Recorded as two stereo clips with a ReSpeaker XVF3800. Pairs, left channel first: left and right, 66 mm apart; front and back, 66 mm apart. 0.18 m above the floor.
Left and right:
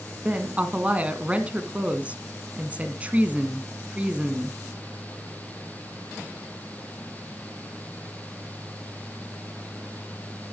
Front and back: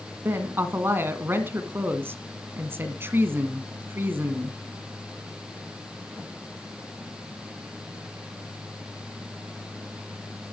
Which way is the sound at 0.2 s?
150° right.